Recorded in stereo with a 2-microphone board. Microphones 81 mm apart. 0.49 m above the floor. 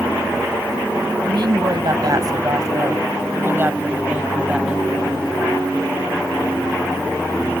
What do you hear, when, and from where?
1.2 s a woman speaking: 65° right (ahead or behind); by 4.9 s 5° right (ahead or behind)